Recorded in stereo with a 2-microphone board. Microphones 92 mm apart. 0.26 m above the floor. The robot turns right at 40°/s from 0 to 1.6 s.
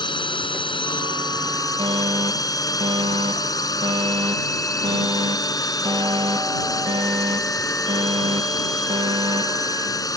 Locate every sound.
0.0 s a drone: 70° left; by 10.2 s 135° left
1.8 s a fire alarm: 70° right (ahead or behind)